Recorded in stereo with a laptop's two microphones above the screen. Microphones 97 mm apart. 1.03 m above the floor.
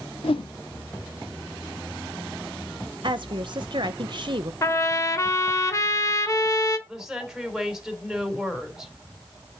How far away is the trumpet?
About 1.1 m.